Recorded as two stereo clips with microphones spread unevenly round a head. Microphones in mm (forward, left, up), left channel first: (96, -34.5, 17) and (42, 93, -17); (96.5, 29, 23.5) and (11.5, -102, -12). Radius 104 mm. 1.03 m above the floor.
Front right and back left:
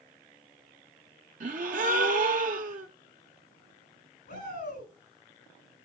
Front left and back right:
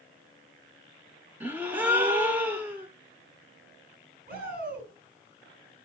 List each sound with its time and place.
1.4 s a gasp: 145° left, 0.8 m
4.3 s a shout: 100° right, 9.5 m